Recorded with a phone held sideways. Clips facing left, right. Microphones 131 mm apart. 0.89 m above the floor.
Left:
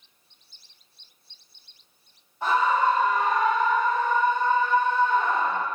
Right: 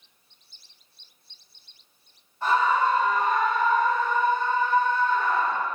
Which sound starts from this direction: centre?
A scream, at 2.4 s.